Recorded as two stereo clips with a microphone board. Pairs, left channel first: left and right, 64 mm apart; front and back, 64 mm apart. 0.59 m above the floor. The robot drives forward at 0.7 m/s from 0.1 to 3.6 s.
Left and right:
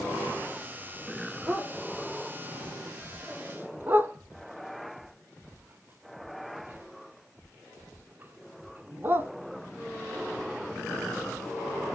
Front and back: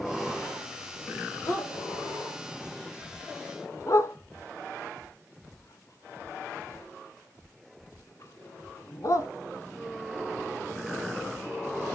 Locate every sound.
1.5 s a dog barking: 15° right, 3 m; by 9.3 s 35° right, 1.4 m